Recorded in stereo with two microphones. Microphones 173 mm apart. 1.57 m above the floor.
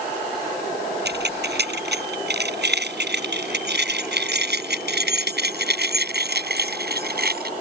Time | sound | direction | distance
1.1 | keys jangling | 85° right | ?